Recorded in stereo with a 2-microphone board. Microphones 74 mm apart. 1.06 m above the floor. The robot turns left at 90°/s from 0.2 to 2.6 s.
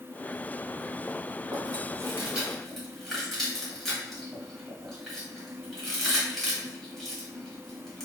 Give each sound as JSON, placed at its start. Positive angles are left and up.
{"t": 1.5, "sound": "chewing", "side_deg": -60, "distance_m": 1.4}